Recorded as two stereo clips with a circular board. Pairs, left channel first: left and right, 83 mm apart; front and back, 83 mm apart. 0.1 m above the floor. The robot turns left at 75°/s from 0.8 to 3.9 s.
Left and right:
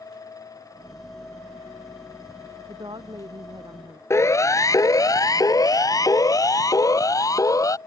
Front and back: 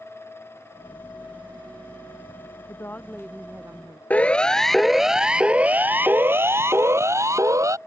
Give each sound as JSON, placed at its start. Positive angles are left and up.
{"t": 2.6, "sound": "a woman speaking", "azimuth_deg": -45}
{"t": 4.1, "sound": "a siren", "azimuth_deg": 60}